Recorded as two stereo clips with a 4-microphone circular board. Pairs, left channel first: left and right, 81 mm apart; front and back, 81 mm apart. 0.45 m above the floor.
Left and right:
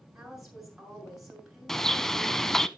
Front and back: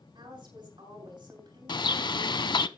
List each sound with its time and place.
0.1 s a woman speaking: 175° right, 6.5 m
1.7 s a bird: 5° left, 0.5 m